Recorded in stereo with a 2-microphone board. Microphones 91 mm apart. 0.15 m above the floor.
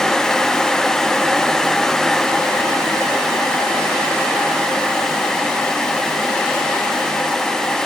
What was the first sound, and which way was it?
Only background noise.